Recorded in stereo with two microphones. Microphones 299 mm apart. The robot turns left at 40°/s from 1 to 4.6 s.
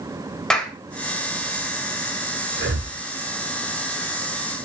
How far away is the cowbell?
No cowbell in this recording.